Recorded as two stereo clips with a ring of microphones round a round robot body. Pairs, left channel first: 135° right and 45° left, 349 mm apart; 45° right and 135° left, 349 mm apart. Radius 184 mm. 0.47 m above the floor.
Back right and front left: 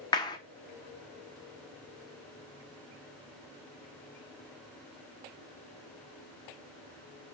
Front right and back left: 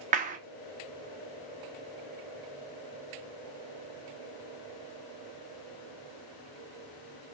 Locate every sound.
0.1 s a clap: 165° left, 0.5 m